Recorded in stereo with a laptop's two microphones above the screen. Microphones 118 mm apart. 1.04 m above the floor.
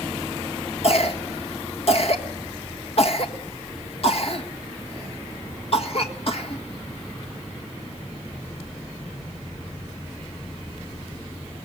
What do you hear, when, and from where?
0.8 s a cough: 55° left (ahead or behind), 1.6 m